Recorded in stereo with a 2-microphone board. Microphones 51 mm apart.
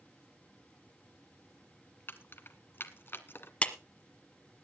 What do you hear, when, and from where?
2.1 s keys jangling: 50° left (ahead or behind), 1.1 m
3.6 s a clap: 25° left (ahead or behind), 1.3 m